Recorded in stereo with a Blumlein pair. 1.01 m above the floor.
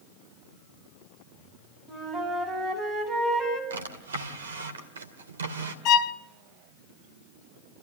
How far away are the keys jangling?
No keys jangling in this recording.